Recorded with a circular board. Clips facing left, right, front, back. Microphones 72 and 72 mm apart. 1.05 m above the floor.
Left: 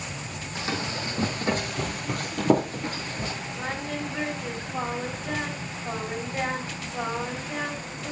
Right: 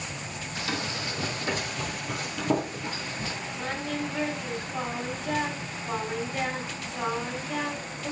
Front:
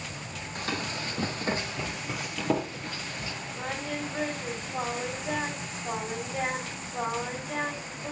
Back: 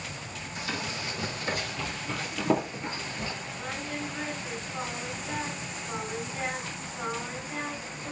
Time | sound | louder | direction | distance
0.6 | running footsteps | left 2 dB, front 2 dB | 30° left | 3 m
3.5 | singing | right 1 dB, front 4 dB | 15° left | 3 m